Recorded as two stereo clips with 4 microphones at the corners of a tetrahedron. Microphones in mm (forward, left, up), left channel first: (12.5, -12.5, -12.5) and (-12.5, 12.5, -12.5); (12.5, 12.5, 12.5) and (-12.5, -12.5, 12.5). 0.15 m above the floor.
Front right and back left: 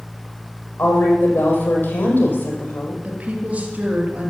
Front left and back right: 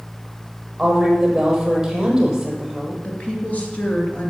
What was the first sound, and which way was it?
A woman speaking, 60° right.